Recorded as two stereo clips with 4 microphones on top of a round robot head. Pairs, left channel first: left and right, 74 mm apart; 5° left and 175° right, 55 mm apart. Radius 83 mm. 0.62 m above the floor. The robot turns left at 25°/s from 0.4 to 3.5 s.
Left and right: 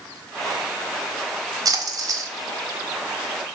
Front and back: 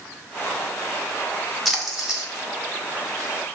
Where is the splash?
90° right, 0.8 m; by 2.3 s 105° right, 0.8 m.